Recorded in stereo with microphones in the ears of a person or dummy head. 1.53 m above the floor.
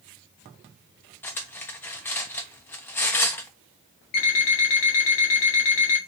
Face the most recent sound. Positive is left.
turn(degrees=35)  # may be behind; listen again after turning